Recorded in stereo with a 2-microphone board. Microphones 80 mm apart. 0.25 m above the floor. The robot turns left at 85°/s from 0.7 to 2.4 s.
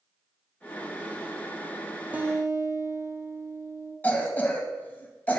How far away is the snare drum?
No snare drum in this recording.